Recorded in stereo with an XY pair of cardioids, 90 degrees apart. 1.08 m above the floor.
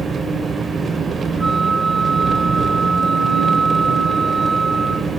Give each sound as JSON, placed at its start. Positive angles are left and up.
{"t": 0.0, "sound": "an engine running", "azimuth_deg": -45, "distance_m": 2.0}
{"t": 1.4, "sound": "a flute", "azimuth_deg": -25, "distance_m": 3.5}